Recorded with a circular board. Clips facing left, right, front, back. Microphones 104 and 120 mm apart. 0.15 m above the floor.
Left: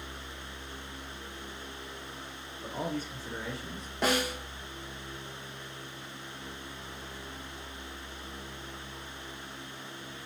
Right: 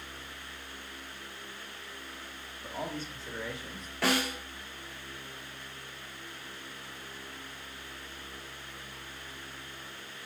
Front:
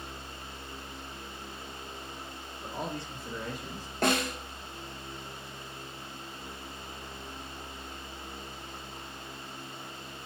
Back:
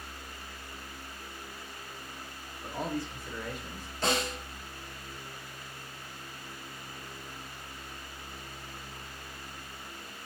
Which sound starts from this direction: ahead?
A snare drum, at 4.0 s.